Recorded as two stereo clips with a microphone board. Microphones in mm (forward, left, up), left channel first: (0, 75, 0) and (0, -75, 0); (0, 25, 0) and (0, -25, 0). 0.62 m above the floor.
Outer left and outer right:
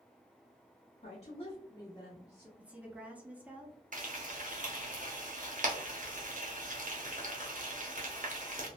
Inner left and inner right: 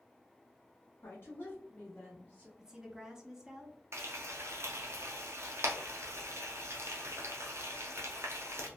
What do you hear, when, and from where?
1.0 s a woman speaking: 50° left (ahead or behind), 1.0 m; by 2.5 s 15° left (ahead or behind), 1.2 m
2.6 s a woman speaking: 10° right (ahead or behind), 0.6 m
3.9 s frying: 60° right (ahead or behind), 0.7 m